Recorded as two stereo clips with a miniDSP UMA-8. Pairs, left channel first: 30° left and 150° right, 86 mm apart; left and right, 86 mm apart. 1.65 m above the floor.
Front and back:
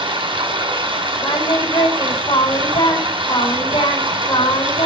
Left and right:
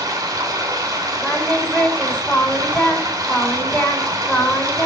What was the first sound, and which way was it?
Running water, 135° right.